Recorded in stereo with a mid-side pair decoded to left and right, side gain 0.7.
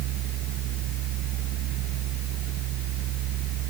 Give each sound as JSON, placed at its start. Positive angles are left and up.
{"t": 0.0, "sound": "a fan", "azimuth_deg": -60}